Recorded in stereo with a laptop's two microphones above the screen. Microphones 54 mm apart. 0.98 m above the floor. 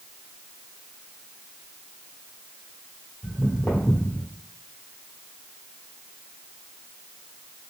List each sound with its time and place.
3.2 s footsteps: 25° left (ahead or behind), 1.2 m; by 4.3 s 50° left (ahead or behind), 1.5 m